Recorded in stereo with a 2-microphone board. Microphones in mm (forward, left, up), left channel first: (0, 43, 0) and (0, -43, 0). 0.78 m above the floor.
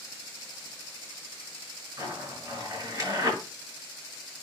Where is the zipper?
40° right (ahead or behind), 5.5 m.